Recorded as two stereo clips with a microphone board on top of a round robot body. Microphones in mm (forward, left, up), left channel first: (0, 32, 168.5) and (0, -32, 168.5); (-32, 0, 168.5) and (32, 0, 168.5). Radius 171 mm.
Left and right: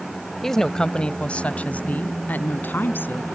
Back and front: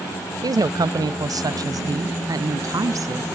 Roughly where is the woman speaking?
Ahead.